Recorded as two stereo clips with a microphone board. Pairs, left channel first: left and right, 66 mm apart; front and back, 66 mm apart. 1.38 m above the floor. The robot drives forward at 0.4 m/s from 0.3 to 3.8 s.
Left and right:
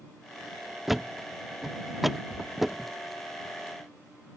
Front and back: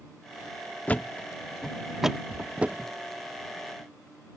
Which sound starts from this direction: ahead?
A thud, at 0.9 s.